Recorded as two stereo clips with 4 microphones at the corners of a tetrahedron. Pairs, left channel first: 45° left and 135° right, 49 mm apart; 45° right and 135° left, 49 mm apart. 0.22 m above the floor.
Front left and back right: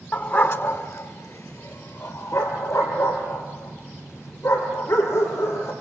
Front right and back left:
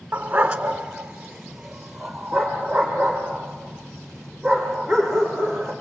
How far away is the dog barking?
About 0.9 m.